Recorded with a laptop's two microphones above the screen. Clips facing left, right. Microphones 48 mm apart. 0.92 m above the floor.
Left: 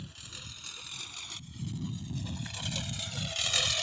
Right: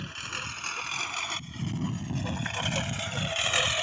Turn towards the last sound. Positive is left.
turn(degrees=-30)  # may be behind; listen again after turning